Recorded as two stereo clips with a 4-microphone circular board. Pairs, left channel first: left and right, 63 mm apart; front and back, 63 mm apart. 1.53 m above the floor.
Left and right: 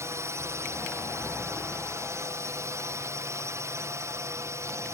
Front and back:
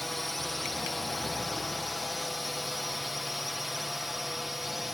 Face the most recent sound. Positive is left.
turn(degrees=-95)